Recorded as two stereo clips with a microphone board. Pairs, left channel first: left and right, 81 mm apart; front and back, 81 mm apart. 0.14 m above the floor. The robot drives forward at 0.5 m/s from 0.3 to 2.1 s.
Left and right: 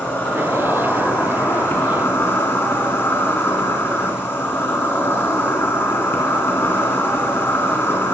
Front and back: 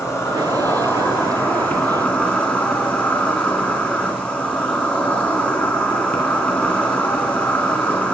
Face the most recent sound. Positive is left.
turn(degrees=65)